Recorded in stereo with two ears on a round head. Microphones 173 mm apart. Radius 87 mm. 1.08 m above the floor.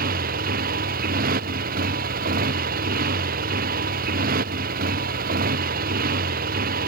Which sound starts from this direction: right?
A motorcycle, at 0.0 s.